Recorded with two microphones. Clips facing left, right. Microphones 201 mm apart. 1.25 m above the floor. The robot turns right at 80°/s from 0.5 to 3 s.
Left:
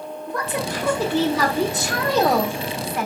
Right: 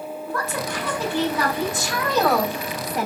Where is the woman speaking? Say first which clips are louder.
Left 3 dB; 20° left, 2.5 m; by 3.1 s 140° right, 2.5 m.